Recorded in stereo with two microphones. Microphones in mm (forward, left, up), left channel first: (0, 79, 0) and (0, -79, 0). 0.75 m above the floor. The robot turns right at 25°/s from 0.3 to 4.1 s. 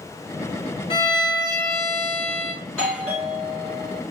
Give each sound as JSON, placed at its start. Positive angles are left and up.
{"t": 0.9, "sound": "a violin", "azimuth_deg": 135, "distance_m": 1.3}
{"t": 2.6, "sound": "a doorbell", "azimuth_deg": 175, "distance_m": 4.0}